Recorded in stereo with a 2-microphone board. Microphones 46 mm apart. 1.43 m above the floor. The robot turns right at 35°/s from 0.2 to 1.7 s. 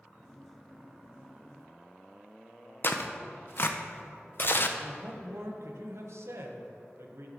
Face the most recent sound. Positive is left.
turn(degrees=-75)  # may be behind; listen again after turning